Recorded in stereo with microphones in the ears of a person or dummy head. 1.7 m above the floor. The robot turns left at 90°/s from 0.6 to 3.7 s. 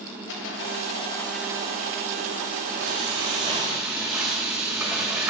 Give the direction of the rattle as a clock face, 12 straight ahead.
10 o'clock.